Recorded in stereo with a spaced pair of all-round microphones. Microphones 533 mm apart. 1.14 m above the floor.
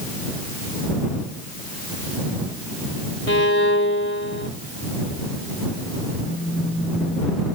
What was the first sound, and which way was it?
A violin, 25° left (ahead or behind).